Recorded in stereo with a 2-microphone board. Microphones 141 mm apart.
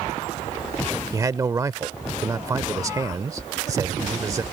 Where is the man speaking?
25° right (ahead or behind).